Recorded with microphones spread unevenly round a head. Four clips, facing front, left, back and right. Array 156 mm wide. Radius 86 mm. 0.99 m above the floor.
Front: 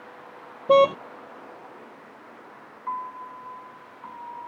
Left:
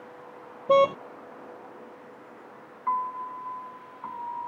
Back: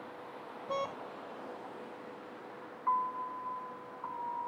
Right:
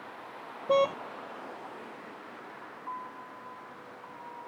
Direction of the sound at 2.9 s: 70° left.